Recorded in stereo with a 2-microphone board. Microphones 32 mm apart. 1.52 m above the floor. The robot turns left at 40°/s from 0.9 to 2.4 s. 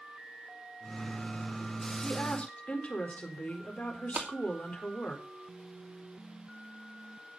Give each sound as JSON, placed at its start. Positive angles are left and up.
{"t": 2.0, "sound": "a woman speaking", "side_deg": 35, "distance_m": 4.5}
{"t": 4.2, "sound": "a clap", "side_deg": -80, "distance_m": 2.5}